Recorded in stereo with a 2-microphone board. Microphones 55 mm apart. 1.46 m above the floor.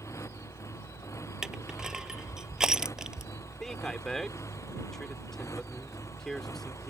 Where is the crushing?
10° right (ahead or behind).